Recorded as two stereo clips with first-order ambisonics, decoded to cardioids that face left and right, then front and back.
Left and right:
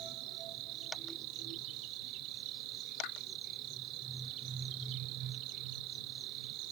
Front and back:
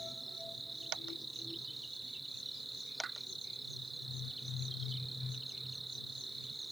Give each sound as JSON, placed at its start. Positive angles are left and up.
{"t": 0.0, "sound": "an insect", "azimuth_deg": -95}
{"t": 3.0, "sound": "a pop", "azimuth_deg": 115}